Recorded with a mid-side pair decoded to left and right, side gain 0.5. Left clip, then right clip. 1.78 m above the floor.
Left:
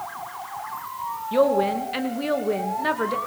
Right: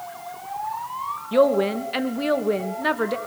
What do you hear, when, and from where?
1.3 s a woman speaking: 20° right, 2.5 m